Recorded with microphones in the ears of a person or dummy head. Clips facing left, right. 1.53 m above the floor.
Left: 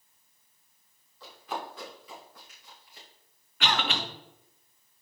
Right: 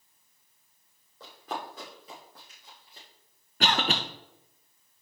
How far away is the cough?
About 0.8 m.